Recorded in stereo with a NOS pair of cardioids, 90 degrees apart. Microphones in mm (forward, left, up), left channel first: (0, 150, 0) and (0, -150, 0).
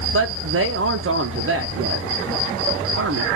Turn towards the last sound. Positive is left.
turn(degrees=-45)